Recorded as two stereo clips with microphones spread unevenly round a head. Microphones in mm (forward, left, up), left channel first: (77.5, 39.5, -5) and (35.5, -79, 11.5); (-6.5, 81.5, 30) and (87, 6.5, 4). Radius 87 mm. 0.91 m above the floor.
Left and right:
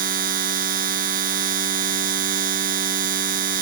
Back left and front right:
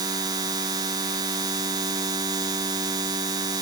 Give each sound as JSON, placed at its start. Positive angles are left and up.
{"t": 0.0, "sound": "a machine running", "azimuth_deg": -110}